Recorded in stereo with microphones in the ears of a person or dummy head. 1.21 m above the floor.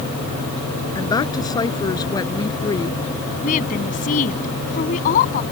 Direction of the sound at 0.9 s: 20° left (ahead or behind).